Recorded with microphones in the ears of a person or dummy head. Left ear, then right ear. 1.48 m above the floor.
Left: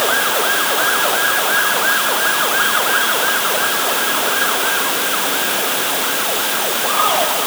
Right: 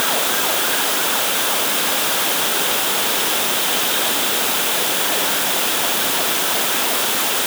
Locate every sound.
Only background noise.